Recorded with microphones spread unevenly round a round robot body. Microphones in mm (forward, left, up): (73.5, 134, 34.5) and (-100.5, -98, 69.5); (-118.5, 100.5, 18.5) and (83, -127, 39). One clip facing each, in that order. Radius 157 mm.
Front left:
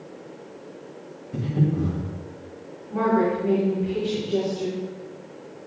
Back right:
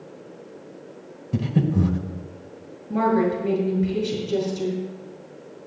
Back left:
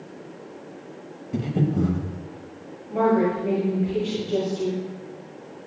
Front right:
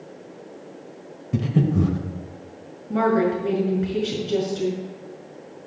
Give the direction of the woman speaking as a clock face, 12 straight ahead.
3 o'clock.